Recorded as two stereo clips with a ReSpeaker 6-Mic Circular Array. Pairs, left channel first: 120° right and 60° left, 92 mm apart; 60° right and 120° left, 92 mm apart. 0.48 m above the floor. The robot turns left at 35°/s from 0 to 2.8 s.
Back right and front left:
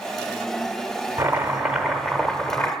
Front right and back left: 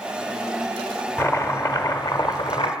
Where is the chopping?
Straight ahead, 0.8 m; by 2.7 s 55° right, 0.8 m.